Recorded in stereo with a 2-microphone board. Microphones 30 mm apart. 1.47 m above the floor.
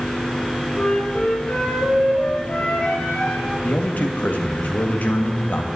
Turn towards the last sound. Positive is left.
turn(degrees=75)  # may be behind; listen again after turning